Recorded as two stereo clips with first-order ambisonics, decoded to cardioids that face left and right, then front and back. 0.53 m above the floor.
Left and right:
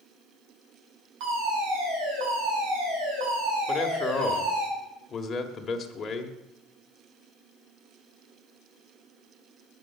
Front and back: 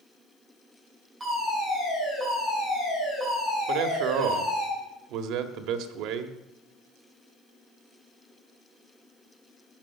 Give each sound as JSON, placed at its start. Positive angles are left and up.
{"t": 1.2, "sound": "a fire alarm", "azimuth_deg": -105, "distance_m": 8.0}
{"t": 3.7, "sound": "a man speaking", "azimuth_deg": 160, "distance_m": 1.7}